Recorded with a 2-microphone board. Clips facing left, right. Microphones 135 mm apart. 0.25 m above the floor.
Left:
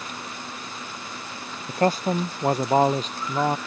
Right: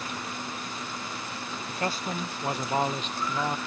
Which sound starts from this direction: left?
A man speaking, at 1.7 s.